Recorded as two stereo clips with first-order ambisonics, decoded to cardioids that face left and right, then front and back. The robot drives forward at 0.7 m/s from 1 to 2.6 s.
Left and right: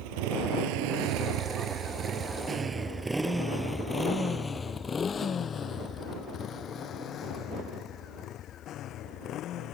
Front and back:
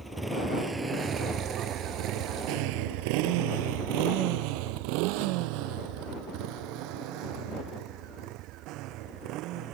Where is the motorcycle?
95° right; by 9.7 s 140° left.